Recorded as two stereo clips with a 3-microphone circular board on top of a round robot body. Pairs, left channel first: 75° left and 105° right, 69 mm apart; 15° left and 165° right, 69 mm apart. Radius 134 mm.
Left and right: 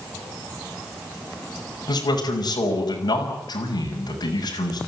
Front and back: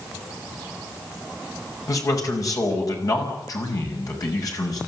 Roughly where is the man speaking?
Ahead left.